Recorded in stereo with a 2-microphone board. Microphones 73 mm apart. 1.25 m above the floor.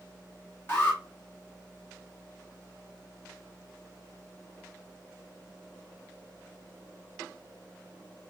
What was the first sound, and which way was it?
An alarm, 30° left (ahead or behind).